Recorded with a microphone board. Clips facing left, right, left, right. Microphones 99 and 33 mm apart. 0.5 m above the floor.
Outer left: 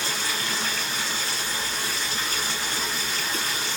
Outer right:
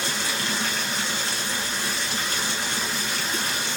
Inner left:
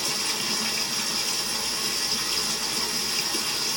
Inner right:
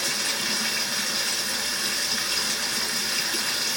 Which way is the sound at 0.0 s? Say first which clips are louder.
Outer right 1 dB, inner right 1 dB; 80° right.